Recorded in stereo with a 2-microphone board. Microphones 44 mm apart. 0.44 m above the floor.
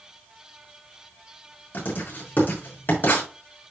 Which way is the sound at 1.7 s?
45° left (ahead or behind).